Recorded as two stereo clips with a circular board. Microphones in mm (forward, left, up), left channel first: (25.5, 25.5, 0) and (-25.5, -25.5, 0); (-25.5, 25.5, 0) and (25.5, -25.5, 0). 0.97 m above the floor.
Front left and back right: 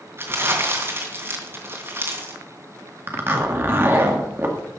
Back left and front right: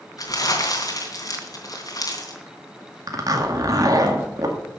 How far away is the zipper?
About 1.9 m.